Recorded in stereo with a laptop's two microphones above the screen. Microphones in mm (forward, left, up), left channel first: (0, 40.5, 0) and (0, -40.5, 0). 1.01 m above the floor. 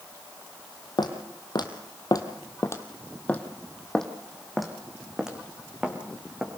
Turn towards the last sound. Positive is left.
turn(degrees=-10)  # may be behind; listen again after turning